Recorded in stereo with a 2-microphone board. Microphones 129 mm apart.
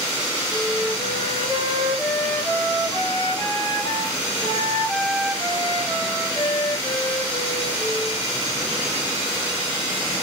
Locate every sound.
0.5 s a flute: 30° left (ahead or behind), 2.5 m